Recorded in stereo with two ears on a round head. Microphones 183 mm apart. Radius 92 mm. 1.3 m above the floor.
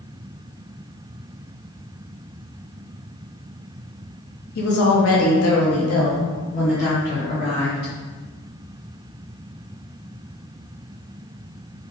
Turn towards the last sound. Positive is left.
turn(degrees=50)  # may be behind; listen again after turning